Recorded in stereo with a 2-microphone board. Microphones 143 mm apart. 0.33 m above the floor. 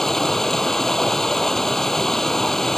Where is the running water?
5° left (ahead or behind).